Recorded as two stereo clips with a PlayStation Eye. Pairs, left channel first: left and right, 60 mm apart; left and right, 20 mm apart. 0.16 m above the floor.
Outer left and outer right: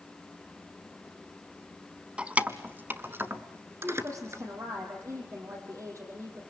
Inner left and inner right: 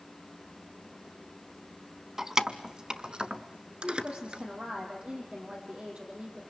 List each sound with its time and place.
2.2 s keys jangling: 20° right (ahead or behind), 0.8 m; by 4.4 s 50° right (ahead or behind), 1.7 m
3.8 s a woman speaking: 55° right (ahead or behind), 7 m